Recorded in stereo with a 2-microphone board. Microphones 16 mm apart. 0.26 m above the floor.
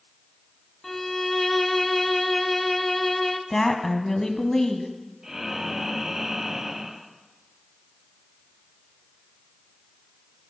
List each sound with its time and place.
0.8 s a violin: 15° left (ahead or behind), 0.9 m
3.5 s a woman speaking: 20° left (ahead or behind), 1.8 m
5.2 s breathing: 40° right (ahead or behind), 1.7 m